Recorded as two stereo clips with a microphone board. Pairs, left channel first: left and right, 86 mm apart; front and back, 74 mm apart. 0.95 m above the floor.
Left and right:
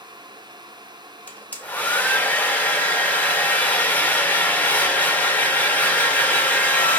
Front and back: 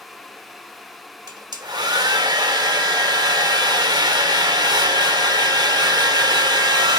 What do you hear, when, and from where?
1.3 s a hair dryer: 160° left, 0.6 m